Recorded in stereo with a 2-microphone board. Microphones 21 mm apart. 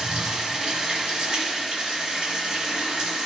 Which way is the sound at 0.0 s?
50° right (ahead or behind).